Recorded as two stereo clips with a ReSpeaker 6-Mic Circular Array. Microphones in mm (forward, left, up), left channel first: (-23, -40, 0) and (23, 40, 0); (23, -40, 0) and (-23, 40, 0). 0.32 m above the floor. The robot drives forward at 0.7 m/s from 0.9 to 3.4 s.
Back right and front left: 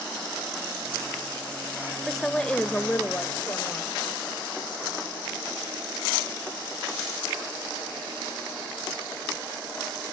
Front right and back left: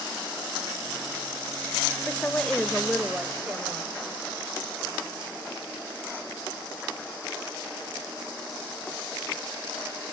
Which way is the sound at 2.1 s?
35° right.